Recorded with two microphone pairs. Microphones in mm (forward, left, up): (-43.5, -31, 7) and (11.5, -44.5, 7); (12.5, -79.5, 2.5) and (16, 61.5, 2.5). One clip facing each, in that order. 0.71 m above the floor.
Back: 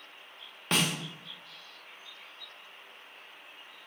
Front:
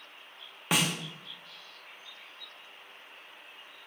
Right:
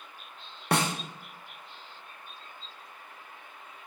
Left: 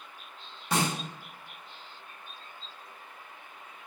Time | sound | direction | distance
0.7 | a snare drum | 95° right | 0.5 m